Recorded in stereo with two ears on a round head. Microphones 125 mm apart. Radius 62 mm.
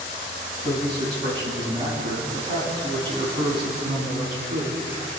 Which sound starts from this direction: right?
A man speaking, at 0.6 s.